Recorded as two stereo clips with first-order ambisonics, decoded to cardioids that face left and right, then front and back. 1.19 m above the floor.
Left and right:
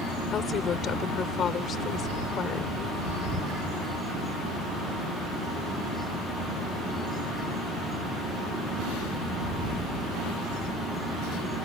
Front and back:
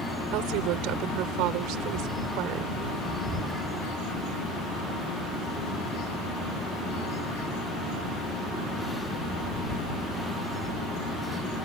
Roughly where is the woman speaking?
Behind left.